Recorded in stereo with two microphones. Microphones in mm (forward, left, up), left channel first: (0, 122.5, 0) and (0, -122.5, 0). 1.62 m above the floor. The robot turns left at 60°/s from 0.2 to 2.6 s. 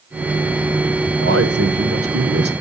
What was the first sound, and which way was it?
A man speaking, 60° right.